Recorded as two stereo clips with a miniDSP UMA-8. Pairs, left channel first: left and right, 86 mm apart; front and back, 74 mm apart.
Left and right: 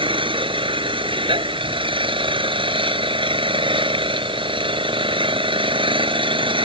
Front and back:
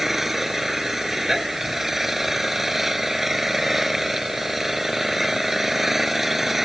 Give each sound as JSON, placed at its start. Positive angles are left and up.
{"t": 0.0, "sound": "an engine running", "azimuth_deg": -95}